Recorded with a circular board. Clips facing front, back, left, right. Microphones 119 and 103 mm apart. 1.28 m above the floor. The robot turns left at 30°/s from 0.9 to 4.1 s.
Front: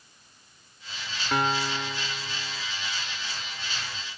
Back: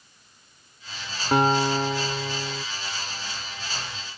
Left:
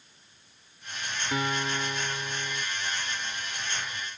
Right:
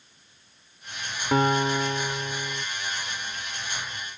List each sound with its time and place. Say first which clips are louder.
1.3 s a guitar: back 7 dB, right 9 dB; 125° right; by 2.6 s 165° right